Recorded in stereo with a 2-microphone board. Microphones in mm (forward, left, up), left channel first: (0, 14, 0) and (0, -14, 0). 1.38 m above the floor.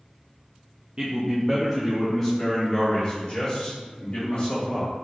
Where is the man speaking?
30° right (ahead or behind), 0.5 m; by 4.9 s 55° left (ahead or behind), 2 m.